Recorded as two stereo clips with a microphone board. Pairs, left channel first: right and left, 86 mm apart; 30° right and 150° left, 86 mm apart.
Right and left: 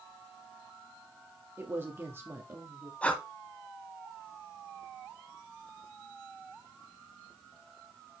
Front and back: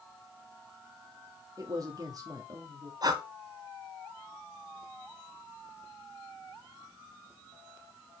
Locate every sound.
1.6 s a man speaking: 140° left, 1.4 m
3.0 s breathing: 165° right, 1.2 m